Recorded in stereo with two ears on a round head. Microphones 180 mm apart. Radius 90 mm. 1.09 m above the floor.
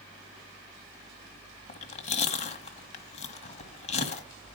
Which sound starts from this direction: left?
Chewing, at 1.7 s.